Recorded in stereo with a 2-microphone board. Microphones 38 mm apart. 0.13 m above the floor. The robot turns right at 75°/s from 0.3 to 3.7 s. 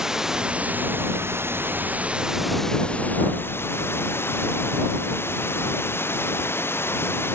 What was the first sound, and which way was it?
Running water, 170° right.